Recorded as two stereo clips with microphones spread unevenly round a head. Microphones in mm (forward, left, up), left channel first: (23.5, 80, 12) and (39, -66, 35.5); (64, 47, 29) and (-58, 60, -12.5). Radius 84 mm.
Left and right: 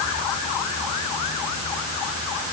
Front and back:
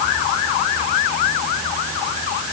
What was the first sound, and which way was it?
Only background noise.